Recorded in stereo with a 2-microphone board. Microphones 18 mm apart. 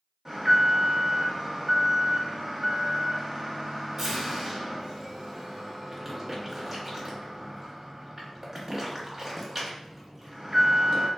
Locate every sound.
0.2 s an alarm: 20° right (ahead or behind), 0.8 m